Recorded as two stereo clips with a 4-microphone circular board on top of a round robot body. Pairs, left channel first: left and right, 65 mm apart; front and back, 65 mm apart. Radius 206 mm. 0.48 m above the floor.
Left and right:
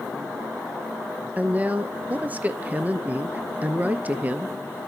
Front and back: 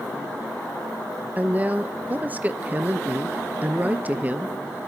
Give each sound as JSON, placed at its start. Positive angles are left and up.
{"t": 1.4, "sound": "a woman speaking", "azimuth_deg": -135, "distance_m": 0.8}